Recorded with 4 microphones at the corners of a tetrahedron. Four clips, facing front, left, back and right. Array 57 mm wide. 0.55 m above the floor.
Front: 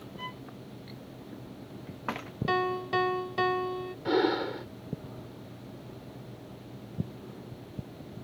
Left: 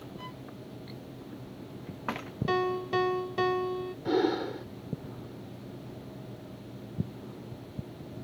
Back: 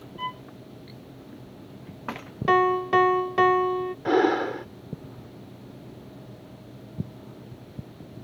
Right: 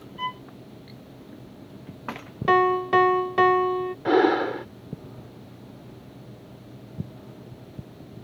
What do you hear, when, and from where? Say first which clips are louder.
0.2 s a violin: right 18 dB, back 9 dB; 115° right
2.5 s a piano: right 10 dB, back 9 dB; 125° right
4.0 s breathing: right 8 dB, back 5 dB; 115° right